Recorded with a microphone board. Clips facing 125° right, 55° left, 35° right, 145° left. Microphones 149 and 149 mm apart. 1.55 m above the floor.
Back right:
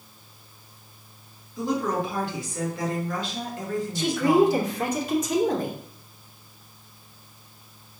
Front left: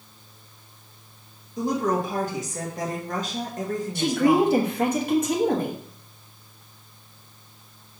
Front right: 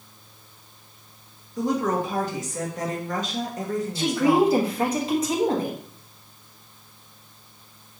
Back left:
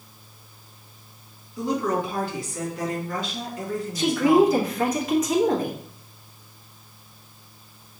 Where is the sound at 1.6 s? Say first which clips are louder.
Front left 2 dB, front right 1 dB; 10° left, 1.4 m.